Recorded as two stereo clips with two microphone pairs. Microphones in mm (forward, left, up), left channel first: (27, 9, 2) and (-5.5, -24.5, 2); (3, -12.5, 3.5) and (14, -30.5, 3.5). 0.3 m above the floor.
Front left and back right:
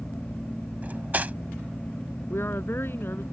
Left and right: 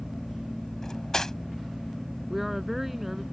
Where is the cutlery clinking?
Straight behind.